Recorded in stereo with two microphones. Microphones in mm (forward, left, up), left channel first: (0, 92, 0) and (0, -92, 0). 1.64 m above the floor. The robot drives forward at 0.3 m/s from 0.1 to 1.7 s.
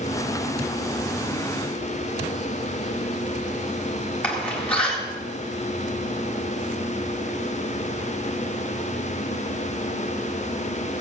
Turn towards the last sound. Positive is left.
turn(degrees=5)  # may be behind; listen again after turning